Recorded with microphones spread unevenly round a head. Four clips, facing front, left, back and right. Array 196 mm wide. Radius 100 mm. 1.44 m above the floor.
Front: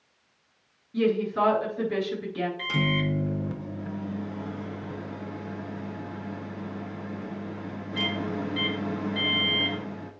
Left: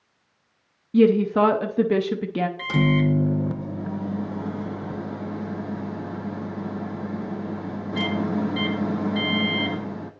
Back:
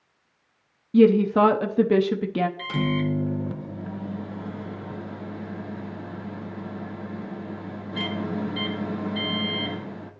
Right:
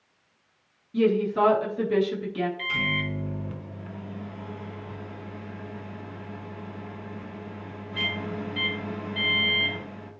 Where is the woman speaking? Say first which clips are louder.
Left 5 dB, back 8 dB; 140° left, 0.6 m.